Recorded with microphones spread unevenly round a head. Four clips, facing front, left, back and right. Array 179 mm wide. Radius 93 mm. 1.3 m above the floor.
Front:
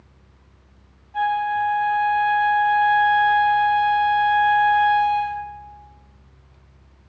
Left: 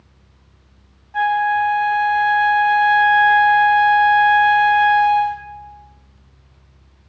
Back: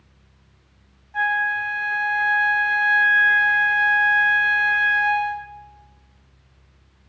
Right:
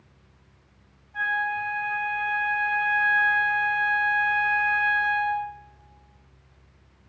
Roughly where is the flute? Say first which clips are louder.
Left 11 dB, front 3 dB; left.